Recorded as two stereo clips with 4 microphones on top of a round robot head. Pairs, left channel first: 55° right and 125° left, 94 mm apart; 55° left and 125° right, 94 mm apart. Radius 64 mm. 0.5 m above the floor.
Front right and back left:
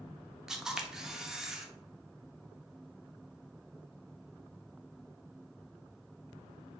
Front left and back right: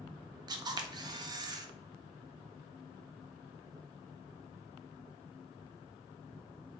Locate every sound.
0.5 s a camera shutter: 150° right, 0.5 m